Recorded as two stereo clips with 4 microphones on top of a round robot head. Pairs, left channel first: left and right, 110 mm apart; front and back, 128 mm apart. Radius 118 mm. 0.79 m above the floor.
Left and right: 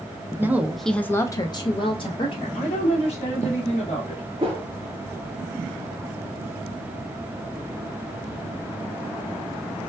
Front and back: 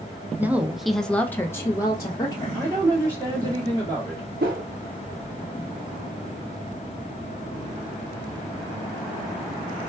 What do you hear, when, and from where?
0.4 s a woman speaking: 120° right, 0.6 m; by 2.6 s 60° left, 1.1 m
2.5 s a woman speaking: 115° left, 1.6 m
4.4 s a whoosh: 160° right, 0.5 m